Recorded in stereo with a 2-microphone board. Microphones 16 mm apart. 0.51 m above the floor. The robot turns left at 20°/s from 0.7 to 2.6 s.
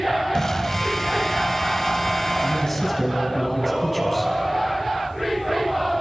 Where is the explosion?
150° left, 2 m; by 3.0 s 110° left, 2 m.